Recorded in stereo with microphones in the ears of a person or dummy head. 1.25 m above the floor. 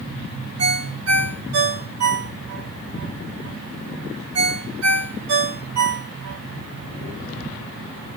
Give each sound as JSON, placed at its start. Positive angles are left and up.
{"t": 0.6, "sound": "a ringtone", "side_deg": -85, "distance_m": 1.4}